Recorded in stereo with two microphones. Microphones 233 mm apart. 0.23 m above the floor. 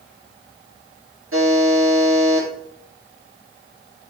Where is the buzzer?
65° right (ahead or behind), 3.5 m.